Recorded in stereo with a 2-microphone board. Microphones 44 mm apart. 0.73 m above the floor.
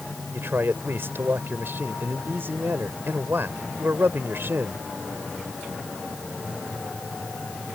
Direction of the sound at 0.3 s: 60° right (ahead or behind).